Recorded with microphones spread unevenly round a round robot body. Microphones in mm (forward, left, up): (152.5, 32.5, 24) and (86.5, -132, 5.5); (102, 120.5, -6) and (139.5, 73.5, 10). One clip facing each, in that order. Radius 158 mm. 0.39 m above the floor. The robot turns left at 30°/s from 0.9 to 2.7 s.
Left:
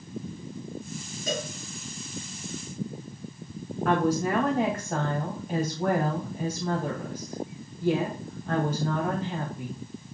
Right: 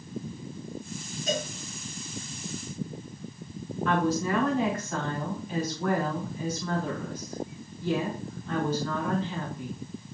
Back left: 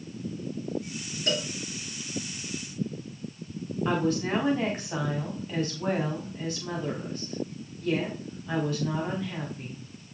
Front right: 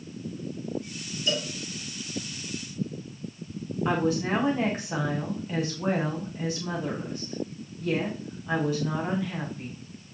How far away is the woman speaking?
About 3.5 m.